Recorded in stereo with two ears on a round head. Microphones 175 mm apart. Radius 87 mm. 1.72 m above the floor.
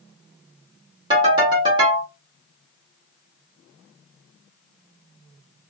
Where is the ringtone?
25° right (ahead or behind), 1.6 m.